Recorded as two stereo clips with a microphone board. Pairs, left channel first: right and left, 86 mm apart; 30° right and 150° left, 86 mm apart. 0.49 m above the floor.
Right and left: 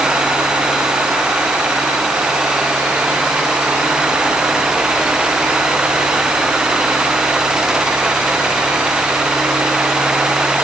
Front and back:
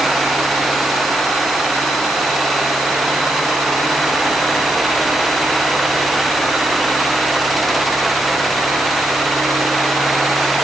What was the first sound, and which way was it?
Only background noise.